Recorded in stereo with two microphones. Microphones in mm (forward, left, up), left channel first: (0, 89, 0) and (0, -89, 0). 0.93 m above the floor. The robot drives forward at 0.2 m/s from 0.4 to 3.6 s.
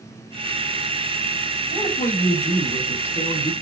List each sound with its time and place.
1.7 s a woman speaking: 60° left (ahead or behind), 2 m; by 3.5 s 70° left (ahead or behind), 2 m